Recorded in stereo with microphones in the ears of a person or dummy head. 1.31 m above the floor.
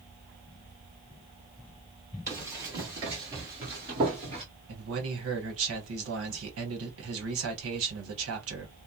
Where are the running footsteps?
20° right (ahead or behind), 1.8 m; by 4.5 s 25° right (ahead or behind), 1.4 m.